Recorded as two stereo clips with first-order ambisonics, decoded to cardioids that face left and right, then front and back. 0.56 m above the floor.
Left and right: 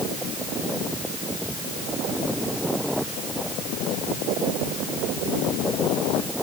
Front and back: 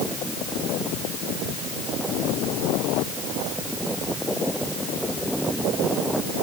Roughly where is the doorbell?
No doorbell in this recording.